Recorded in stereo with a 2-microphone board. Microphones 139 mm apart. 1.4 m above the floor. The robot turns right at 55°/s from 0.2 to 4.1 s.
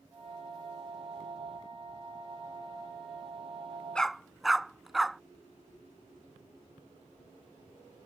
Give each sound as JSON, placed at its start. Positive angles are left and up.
{"t": 4.0, "sound": "a dog barking", "side_deg": 5}